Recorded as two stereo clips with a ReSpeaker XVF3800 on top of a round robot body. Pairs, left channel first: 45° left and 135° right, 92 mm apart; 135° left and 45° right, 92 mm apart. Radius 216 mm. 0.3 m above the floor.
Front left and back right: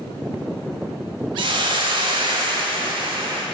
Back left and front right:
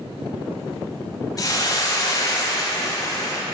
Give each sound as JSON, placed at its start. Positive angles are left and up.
{"t": 1.4, "sound": "a hiss", "azimuth_deg": -170, "distance_m": 0.5}